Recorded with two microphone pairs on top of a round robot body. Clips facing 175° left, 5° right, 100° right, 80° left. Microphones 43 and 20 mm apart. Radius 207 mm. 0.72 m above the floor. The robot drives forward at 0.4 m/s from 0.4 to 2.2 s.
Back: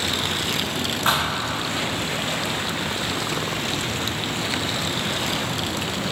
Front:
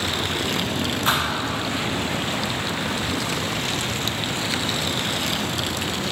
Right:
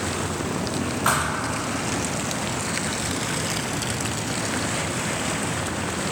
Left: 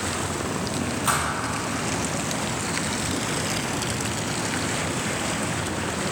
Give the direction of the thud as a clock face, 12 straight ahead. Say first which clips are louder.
Back 1 dB, right 2 dB; 5 o'clock.